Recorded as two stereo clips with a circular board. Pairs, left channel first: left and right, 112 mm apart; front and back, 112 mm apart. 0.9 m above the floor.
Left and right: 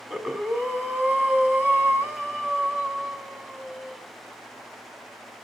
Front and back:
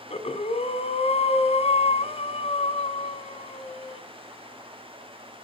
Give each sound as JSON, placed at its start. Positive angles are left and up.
{"t": 0.1, "sound": "breathing", "azimuth_deg": -15, "distance_m": 2.0}